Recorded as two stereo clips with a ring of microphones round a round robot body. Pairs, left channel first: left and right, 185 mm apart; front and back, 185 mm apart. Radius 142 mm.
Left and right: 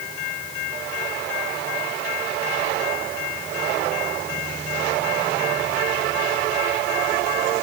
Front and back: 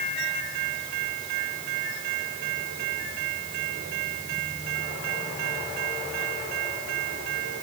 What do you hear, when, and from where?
Only background noise.